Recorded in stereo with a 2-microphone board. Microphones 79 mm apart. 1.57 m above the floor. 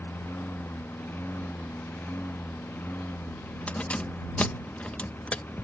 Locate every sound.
0.0 s a lawn mower: 25° left (ahead or behind)
3.7 s keys jangling: 15° left (ahead or behind)